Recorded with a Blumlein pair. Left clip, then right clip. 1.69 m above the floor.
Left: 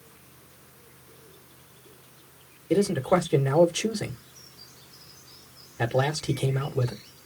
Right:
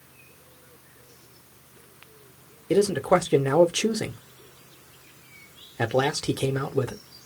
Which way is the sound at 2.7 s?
20° right.